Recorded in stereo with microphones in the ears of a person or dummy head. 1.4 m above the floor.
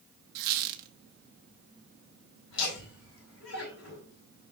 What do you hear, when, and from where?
0.3 s a squeak: 55° right (ahead or behind), 1.1 m
2.5 s laughter: 85° left, 4 m